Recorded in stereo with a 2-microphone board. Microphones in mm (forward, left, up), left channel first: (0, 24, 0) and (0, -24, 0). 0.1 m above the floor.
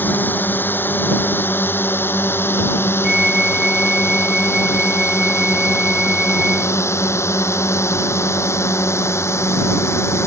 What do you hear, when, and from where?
0.0 s a drone: 45° left (ahead or behind); by 10.3 s 70° left (ahead or behind)
3.0 s a flute: 10° right (ahead or behind)